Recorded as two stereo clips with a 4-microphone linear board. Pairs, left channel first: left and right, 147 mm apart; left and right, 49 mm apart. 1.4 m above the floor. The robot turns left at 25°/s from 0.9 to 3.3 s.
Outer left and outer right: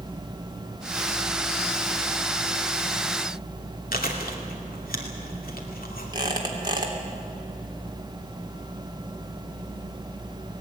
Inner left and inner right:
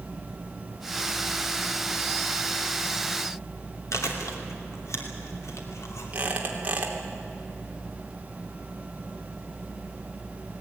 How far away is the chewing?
About 2.5 m.